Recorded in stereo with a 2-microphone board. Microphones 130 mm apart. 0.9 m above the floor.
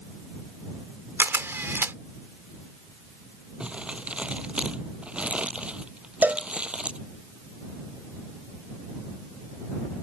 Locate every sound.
1.2 s a camera shutter: 20° right (ahead or behind)
3.6 s crumpling: 10° right (ahead or behind)
6.2 s a cowbell: 15° right (ahead or behind)